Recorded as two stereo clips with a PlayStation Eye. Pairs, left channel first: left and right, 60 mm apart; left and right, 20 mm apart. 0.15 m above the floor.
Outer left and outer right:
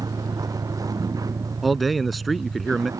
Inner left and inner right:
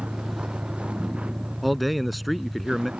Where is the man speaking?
Centre (ahead or behind).